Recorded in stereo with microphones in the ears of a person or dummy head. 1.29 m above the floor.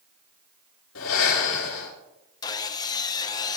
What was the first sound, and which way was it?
Breathing, 90° left.